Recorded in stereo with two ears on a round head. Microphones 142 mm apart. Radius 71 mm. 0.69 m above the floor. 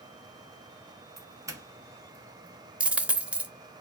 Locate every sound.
1.2 s a doorbell: 20° right (ahead or behind), 0.9 m
2.8 s a dropped coin: 5° right (ahead or behind), 0.5 m